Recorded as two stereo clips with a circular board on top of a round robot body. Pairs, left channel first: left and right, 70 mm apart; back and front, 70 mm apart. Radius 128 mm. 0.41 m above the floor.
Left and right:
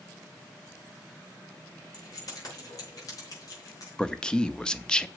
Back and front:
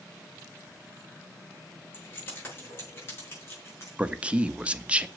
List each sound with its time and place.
1.9 s keys jangling: 125° left, 6.5 m; by 3.9 s 130° left, 5 m
4.0 s a man speaking: 35° left, 0.9 m